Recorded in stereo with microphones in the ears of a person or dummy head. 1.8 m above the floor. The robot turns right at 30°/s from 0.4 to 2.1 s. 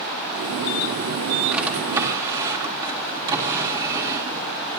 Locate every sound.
1.5 s a drawer: 5° right (ahead or behind), 2.0 m; by 4.4 s 20° right (ahead or behind), 2.0 m